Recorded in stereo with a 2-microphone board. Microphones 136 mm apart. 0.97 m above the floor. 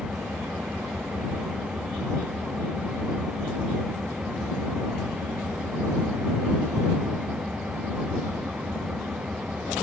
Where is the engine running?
5° right (ahead or behind).